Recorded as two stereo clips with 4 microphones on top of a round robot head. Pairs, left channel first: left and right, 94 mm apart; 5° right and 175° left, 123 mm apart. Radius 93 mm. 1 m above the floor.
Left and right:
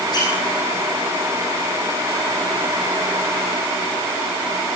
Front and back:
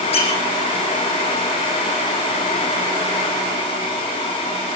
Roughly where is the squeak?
Ahead left.